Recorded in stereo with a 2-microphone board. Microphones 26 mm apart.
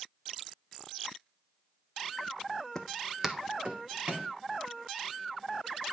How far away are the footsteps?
About 0.9 m.